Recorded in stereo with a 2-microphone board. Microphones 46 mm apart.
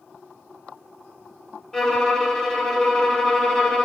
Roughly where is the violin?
Centre.